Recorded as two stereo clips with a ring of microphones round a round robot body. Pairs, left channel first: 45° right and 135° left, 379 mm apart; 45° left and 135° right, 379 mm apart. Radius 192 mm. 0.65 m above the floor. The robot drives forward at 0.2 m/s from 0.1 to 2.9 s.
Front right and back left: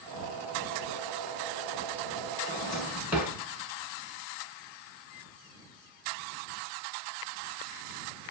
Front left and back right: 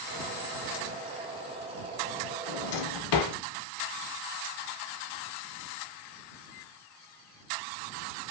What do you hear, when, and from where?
2.5 s a drawer: 40° left, 0.5 m; by 3.4 s 50° left, 0.5 m